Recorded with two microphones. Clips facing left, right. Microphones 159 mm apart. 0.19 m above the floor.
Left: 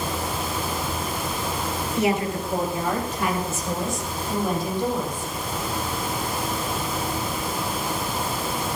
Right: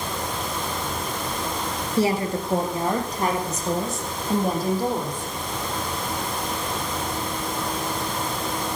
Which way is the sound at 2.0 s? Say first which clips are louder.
Right 1 dB; 30° right (ahead or behind).